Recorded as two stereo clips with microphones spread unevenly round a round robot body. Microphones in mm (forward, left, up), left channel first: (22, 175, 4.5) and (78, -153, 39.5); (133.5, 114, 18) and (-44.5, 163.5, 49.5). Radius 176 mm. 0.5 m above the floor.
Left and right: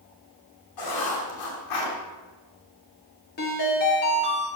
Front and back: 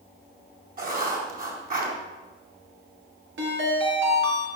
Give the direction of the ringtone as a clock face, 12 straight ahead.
7 o'clock.